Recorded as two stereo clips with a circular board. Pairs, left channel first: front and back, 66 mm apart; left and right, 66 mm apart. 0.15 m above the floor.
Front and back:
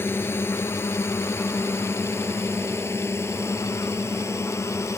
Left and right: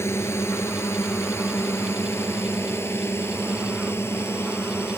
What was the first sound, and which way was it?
A drone, 50° left.